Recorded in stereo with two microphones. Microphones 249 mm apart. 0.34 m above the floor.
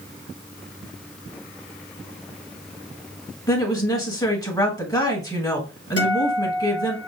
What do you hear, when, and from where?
3.5 s a woman speaking: 15° left (ahead or behind), 1.3 m
6.0 s a guitar: 65° right (ahead or behind), 3.5 m